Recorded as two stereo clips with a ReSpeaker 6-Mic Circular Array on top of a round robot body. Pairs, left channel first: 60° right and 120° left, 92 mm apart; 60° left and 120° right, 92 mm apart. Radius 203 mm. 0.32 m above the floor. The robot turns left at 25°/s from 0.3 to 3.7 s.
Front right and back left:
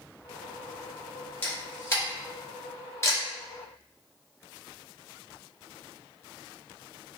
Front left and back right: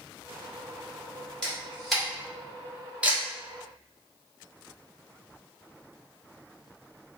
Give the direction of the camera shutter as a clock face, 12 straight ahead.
1 o'clock.